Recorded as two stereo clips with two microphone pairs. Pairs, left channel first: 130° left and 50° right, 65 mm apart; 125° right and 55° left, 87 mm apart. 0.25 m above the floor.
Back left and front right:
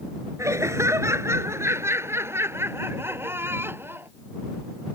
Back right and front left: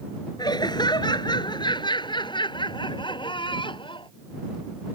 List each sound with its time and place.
0.4 s laughter: 90° right; by 4.1 s 105° right